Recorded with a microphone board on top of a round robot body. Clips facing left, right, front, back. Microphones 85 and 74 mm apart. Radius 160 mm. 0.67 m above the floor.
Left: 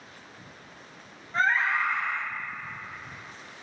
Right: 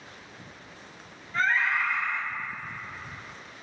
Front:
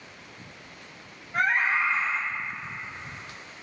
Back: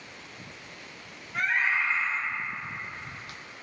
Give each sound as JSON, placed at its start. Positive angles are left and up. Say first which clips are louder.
{"t": 1.3, "sound": "a scream", "louder": "left 1 dB, front 3 dB", "azimuth_deg": 35, "distance_m": 2.0}